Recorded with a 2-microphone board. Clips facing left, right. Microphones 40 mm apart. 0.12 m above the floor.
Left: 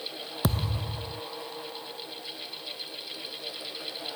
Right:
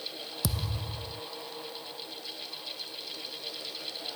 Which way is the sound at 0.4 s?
40° left (ahead or behind).